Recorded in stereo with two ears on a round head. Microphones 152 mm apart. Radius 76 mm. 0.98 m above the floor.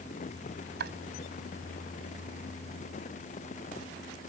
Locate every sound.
0.8 s chopping: 70° right (ahead or behind)